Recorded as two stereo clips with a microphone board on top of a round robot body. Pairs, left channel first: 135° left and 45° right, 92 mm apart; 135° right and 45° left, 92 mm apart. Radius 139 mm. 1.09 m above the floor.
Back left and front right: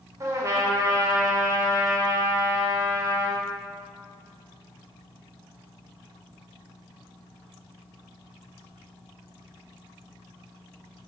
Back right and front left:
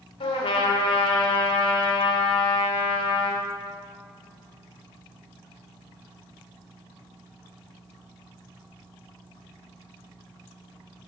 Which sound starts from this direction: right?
A trumpet, at 0.2 s.